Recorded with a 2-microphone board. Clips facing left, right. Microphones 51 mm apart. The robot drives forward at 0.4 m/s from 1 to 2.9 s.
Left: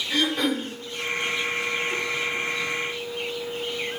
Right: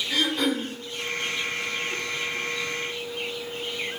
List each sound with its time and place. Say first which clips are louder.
0.1 s throat clearing: left 1 dB; 35° left (ahead or behind), 1.8 m